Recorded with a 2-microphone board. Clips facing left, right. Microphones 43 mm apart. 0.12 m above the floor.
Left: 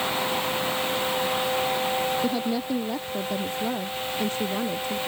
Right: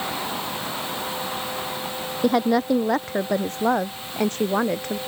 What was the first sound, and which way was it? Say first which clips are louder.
A woman speaking: right 6 dB; 65° right (ahead or behind).